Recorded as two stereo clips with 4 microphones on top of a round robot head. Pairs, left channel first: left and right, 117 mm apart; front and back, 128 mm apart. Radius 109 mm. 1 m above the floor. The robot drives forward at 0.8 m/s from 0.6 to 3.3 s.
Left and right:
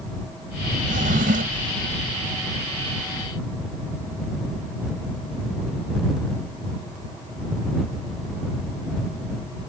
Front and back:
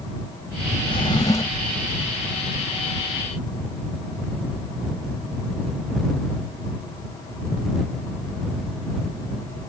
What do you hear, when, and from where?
0.9 s a drawer: 60° right; by 1.7 s 80° right